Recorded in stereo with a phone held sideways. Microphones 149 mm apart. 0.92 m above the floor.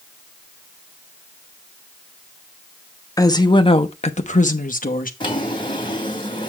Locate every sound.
3.2 s a woman speaking: 25° left (ahead or behind), 1.0 m; by 5.1 s 70° left (ahead or behind), 1.2 m
5.2 s a drawer: 35° left (ahead or behind), 2.5 m